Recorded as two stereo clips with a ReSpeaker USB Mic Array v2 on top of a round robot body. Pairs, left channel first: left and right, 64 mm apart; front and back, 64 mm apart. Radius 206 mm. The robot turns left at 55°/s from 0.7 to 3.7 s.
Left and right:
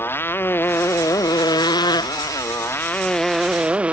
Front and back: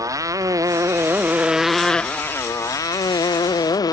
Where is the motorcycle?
150° left; by 3.9 s 15° right.